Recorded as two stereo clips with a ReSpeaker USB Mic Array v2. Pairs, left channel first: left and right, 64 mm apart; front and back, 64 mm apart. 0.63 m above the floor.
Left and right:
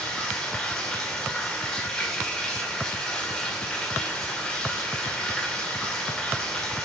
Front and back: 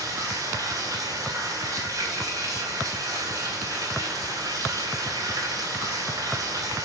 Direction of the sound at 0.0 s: 170° left.